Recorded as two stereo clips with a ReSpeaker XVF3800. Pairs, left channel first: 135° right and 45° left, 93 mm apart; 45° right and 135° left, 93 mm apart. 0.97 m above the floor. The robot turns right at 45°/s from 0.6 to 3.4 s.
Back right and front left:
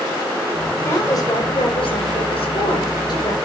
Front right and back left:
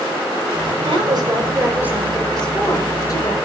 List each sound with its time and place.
0.8 s a woman speaking: 165° left, 4.5 m; by 3.4 s 85° right, 4.5 m